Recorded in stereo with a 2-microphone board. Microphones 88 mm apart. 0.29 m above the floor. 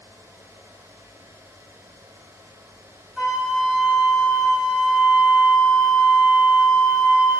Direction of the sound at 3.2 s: 10° right (ahead or behind).